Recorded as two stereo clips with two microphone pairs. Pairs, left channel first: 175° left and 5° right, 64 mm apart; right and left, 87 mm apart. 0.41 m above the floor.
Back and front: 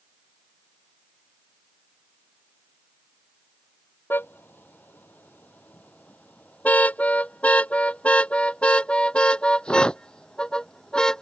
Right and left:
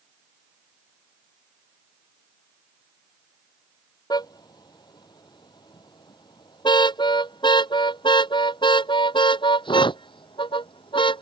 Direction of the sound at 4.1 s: 125° right.